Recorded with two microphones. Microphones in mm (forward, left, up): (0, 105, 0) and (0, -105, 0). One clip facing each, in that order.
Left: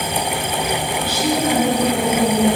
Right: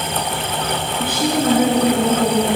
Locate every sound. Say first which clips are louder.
1.0 s a woman speaking: right 2 dB; 55° right (ahead or behind), 3 m